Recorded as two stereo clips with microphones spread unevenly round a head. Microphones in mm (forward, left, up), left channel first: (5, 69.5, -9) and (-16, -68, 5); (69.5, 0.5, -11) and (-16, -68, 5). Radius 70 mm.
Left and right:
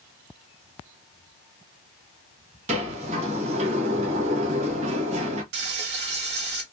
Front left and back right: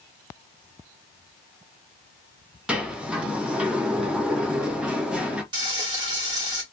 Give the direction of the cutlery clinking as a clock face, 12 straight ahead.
I don't hear cutlery clinking.